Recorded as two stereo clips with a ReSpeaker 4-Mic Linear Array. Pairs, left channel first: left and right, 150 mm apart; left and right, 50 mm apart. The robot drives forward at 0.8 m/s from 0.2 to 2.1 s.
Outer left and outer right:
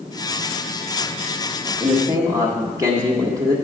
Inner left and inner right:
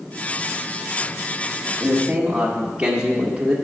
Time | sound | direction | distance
1.8 | a man speaking | 25° right (ahead or behind) | 1.3 m